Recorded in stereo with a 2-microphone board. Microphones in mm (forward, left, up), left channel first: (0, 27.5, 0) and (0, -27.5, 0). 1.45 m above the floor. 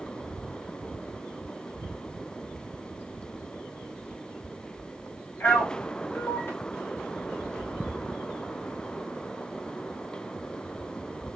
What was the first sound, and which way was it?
A man speaking, 40° left (ahead or behind).